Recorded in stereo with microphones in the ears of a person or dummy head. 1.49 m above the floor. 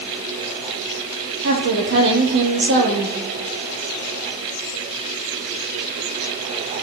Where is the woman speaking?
65° right (ahead or behind), 3 m.